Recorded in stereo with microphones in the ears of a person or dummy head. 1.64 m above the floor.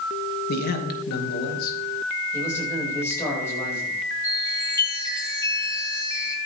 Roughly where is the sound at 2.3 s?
Centre.